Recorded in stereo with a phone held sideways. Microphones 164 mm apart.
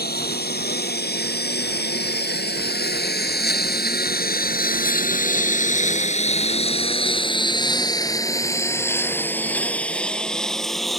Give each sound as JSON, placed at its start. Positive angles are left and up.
{"t": 0.0, "sound": "a lawn mower", "side_deg": 75}